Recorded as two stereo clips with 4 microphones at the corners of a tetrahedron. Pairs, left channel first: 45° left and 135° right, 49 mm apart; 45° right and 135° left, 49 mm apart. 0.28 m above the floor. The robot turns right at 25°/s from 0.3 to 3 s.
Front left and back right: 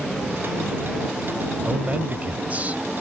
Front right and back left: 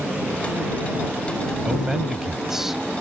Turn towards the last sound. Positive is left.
turn(degrees=-140)